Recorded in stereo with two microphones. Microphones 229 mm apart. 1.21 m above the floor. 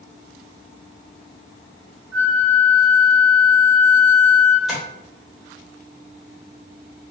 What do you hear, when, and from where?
2.1 s a flute: 5° right (ahead or behind), 1.9 m
4.7 s tapping: centre (ahead or behind), 1.9 m